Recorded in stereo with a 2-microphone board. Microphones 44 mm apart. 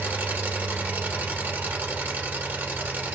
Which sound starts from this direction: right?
An engine running, at 0.0 s.